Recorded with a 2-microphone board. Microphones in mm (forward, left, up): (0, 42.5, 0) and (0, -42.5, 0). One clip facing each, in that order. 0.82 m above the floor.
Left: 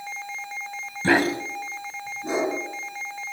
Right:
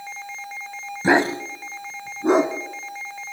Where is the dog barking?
15° right (ahead or behind), 1.2 m; by 2.5 s 65° right (ahead or behind), 2 m.